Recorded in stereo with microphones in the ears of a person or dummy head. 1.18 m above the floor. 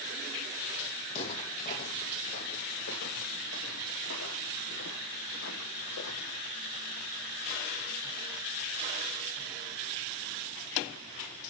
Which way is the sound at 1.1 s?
35° left (ahead or behind).